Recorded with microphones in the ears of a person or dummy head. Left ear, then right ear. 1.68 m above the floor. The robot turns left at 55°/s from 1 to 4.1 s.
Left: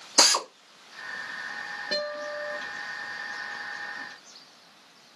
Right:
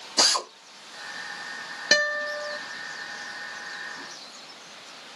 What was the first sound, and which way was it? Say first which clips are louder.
A drill: left 1 dB; 35° left (ahead or behind).